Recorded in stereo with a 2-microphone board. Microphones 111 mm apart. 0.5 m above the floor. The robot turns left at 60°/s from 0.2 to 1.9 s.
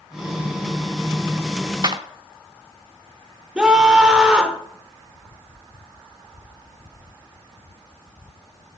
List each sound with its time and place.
1.8 s a clap: 40° right (ahead or behind), 0.8 m
3.5 s a scream: 10° right (ahead or behind), 1.4 m